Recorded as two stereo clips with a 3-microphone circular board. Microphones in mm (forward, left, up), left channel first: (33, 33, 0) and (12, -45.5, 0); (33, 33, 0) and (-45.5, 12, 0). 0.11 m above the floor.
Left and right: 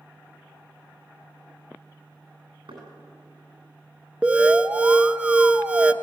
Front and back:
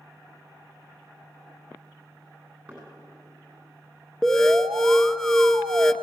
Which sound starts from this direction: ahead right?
An alarm, at 4.2 s.